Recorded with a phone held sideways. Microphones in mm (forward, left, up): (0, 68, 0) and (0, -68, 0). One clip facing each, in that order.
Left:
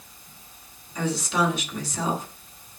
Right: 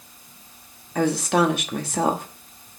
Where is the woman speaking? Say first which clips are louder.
Right 5 dB; 65° right (ahead or behind), 1.3 m.